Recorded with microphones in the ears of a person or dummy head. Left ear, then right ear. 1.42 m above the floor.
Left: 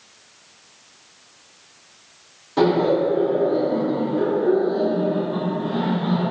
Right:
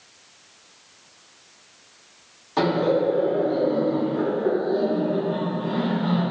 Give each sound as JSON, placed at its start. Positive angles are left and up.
{"t": 2.6, "sound": "laughter", "side_deg": -55, "distance_m": 1.5}